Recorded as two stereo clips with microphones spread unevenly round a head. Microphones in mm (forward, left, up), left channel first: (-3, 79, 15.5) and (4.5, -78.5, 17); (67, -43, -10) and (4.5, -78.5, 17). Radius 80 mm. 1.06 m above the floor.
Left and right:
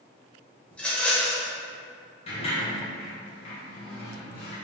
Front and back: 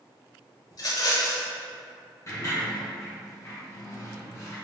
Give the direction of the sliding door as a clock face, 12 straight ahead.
10 o'clock.